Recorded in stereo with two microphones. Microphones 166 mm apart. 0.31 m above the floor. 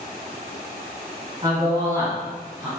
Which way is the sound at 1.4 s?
25° right (ahead or behind).